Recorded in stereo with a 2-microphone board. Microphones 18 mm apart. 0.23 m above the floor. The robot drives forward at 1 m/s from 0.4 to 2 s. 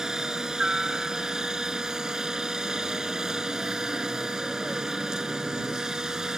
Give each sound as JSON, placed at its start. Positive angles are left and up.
{"t": 0.0, "sound": "a helicopter", "side_deg": -40}